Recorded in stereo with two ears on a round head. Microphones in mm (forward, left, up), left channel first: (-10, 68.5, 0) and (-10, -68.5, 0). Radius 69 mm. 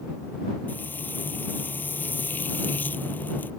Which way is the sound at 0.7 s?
15° left (ahead or behind).